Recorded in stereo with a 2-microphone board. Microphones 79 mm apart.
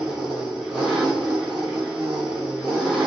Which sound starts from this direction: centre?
An engine running, at 0.0 s.